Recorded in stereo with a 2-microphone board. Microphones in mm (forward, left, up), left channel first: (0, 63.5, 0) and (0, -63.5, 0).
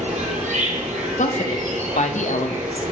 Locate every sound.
0.0 s an insect: 70° right (ahead or behind), 1.2 m
1.2 s a woman speaking: 75° left (ahead or behind), 0.7 m